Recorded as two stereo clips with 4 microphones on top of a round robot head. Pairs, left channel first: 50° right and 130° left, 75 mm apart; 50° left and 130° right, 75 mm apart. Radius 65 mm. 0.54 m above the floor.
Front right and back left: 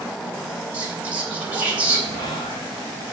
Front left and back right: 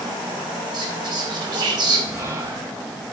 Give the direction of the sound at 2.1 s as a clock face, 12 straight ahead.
3 o'clock.